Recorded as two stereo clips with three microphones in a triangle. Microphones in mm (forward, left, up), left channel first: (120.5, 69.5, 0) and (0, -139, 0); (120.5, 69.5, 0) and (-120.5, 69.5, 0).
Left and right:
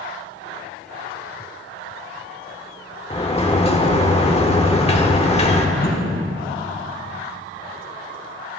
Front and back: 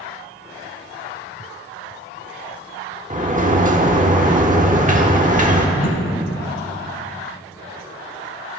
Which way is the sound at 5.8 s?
10° left.